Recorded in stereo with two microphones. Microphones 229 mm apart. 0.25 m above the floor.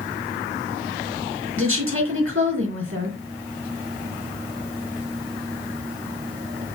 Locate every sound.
1.6 s a woman speaking: 65° right (ahead or behind), 3.5 m